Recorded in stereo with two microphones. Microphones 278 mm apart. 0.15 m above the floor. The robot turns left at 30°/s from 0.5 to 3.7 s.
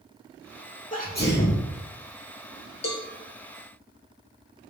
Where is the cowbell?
60° left (ahead or behind), 1.5 m; by 3.0 s 55° left (ahead or behind), 1.5 m.